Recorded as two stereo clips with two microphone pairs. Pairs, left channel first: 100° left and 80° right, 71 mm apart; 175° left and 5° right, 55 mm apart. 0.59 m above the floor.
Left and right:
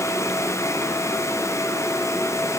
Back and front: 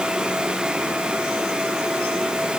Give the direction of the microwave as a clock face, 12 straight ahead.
No microwave in this recording.